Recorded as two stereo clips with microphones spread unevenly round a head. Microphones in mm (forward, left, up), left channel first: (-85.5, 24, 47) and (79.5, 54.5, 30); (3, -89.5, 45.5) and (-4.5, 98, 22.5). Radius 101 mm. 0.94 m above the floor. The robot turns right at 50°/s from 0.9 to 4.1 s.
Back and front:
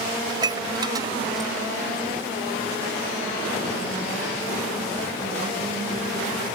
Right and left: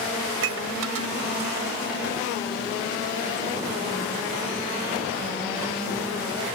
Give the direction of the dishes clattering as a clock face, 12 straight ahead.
9 o'clock.